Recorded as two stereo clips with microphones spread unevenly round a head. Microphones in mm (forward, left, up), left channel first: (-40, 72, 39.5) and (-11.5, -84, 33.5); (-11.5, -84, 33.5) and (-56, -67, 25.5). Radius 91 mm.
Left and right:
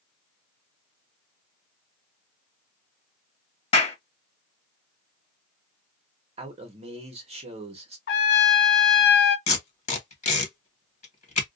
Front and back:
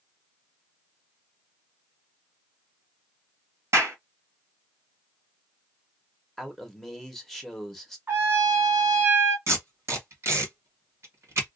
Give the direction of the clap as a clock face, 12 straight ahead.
7 o'clock.